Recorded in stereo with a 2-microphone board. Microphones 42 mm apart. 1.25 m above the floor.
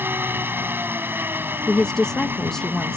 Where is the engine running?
55° right (ahead or behind).